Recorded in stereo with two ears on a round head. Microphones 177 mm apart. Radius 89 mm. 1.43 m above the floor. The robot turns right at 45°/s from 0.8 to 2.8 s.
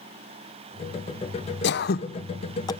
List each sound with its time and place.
1.6 s throat clearing: 65° left (ahead or behind), 0.7 m; by 2.7 s 20° left (ahead or behind), 0.7 m